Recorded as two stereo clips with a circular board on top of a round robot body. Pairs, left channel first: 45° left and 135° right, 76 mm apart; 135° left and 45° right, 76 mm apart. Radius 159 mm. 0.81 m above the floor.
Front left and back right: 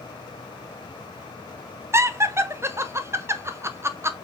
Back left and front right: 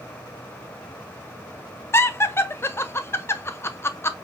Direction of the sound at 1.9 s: Straight behind.